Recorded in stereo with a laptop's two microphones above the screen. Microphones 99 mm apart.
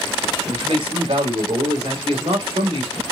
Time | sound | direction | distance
0.5 | a man speaking | 75° right (ahead or behind) | 3 m